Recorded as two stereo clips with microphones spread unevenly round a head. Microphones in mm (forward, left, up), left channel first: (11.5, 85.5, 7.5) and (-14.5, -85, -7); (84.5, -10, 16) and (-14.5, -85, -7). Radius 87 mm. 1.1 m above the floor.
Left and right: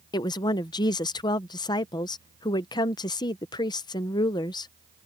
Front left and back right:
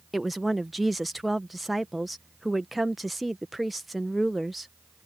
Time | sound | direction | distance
0.1 | a woman speaking | 140° left | ?